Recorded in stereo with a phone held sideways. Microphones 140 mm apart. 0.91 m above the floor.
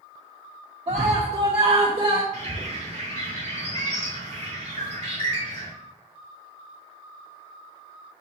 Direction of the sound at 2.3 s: 55° right (ahead or behind).